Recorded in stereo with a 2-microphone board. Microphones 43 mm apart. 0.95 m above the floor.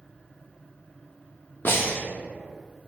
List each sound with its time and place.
1.6 s breathing: 50° left (ahead or behind), 0.6 m